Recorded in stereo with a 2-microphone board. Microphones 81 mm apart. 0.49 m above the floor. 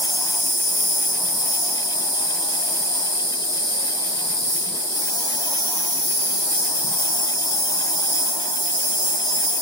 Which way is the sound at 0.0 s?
45° right (ahead or behind).